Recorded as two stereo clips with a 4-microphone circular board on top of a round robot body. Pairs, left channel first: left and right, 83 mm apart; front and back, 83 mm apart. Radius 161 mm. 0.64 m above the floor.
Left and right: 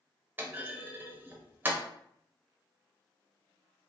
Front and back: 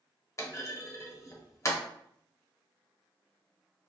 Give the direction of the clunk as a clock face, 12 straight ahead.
1 o'clock.